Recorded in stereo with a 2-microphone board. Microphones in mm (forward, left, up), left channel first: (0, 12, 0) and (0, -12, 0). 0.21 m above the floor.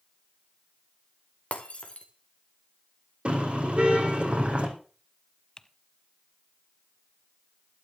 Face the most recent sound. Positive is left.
turn(degrees=25)  # may be behind; listen again after turning